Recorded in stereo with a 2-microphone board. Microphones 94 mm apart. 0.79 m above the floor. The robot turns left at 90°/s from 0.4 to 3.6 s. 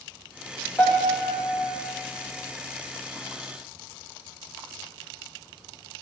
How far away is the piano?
About 0.9 m.